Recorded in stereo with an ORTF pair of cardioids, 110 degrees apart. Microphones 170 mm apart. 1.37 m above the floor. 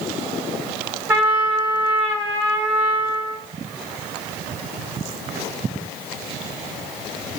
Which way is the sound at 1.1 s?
15° right.